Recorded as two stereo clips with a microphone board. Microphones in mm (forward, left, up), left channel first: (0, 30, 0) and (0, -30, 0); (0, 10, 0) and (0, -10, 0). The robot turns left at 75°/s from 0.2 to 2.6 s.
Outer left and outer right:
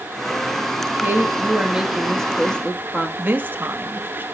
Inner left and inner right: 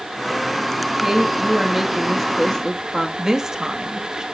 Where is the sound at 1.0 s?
100° right, 1.1 m; by 3.1 s 140° left, 1.1 m.